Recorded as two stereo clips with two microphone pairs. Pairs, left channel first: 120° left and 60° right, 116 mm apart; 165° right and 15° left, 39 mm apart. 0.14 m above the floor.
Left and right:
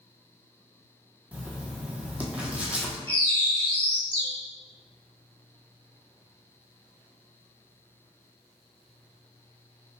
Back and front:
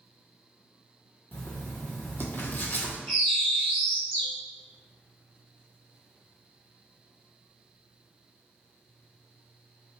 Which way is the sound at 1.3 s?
135° right.